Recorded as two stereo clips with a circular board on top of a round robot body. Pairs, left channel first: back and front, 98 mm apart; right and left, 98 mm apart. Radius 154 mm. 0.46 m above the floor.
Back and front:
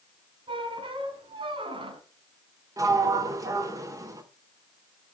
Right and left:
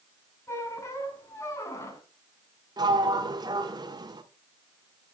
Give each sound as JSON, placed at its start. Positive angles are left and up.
{"t": 0.5, "sound": "a squeak", "azimuth_deg": -30, "distance_m": 2.5}
{"t": 2.8, "sound": "a sliding door", "azimuth_deg": 50, "distance_m": 1.6}